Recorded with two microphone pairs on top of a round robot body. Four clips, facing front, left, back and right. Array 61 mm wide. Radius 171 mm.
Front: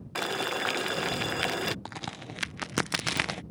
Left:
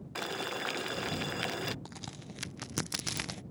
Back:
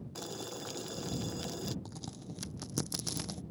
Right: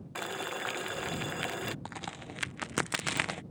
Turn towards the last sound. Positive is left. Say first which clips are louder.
# right 5 dB, front 7 dB
turn(degrees=-35)